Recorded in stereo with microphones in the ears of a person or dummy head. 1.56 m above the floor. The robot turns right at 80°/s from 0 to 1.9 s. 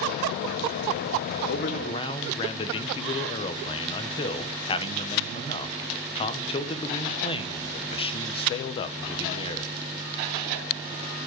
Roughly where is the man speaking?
Behind left.